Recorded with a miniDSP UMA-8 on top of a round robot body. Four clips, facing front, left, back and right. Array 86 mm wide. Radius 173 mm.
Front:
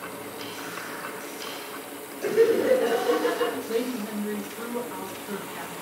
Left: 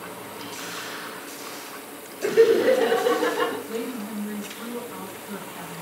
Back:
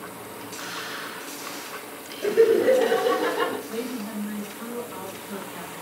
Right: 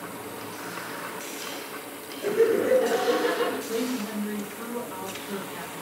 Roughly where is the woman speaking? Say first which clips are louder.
Right 2 dB, front 3 dB; ahead.